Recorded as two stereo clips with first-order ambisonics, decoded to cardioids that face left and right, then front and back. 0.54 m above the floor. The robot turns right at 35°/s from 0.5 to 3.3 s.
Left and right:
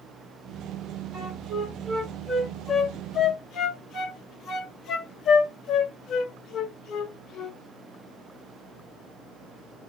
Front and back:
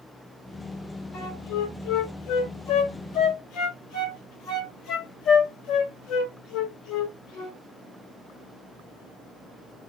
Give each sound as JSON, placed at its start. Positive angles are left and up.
{"t": 1.1, "sound": "a flute", "azimuth_deg": -40, "distance_m": 1.4}